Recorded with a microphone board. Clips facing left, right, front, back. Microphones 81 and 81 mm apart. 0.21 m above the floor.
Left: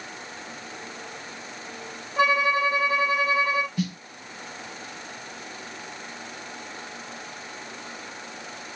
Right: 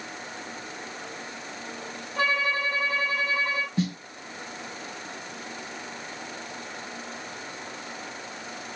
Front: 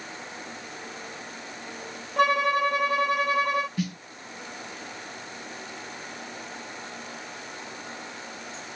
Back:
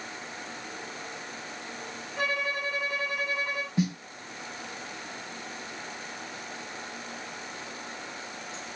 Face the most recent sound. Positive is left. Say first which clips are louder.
# right 1 dB, back 3 dB
turn(degrees=-125)